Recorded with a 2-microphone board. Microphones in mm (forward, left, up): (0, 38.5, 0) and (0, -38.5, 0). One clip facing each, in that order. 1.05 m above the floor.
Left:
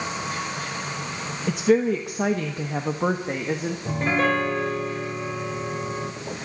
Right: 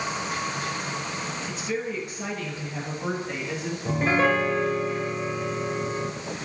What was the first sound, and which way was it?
A woman speaking, 70° left (ahead or behind).